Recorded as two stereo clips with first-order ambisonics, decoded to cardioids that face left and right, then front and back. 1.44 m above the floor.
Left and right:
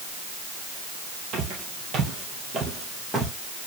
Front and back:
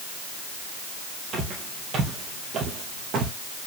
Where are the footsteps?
130° right, 2.5 m; by 3.3 s 160° right, 1.9 m.